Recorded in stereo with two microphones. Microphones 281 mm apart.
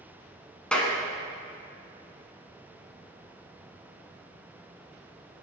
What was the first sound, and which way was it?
A clap, 5° left (ahead or behind).